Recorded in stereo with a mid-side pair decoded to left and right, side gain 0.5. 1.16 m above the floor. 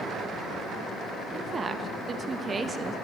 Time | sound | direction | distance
1.3 | a woman speaking | 40° right | 1.2 m